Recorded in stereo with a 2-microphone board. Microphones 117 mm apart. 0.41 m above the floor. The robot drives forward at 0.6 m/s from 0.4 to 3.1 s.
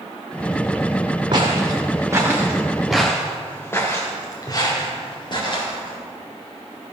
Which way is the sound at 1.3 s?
40° right (ahead or behind).